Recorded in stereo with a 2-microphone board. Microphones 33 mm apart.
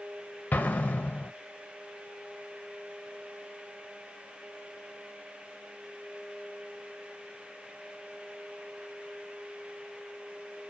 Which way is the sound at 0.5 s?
70° left (ahead or behind).